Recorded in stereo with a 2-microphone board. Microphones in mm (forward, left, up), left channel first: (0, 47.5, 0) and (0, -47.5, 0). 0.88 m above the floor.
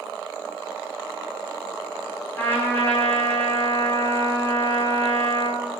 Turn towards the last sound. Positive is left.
turn(degrees=20)  # may be behind; listen again after turning